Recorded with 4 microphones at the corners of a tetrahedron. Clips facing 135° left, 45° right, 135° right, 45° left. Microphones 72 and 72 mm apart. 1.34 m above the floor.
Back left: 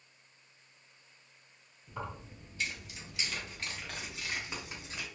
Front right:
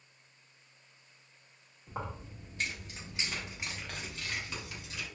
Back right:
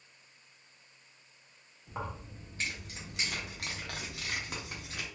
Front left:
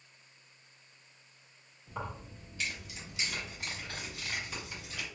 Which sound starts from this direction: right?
Keys jangling, at 1.9 s.